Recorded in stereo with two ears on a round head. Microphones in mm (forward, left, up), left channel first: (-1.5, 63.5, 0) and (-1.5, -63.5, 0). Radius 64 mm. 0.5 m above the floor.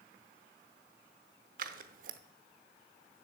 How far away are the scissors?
About 0.7 m.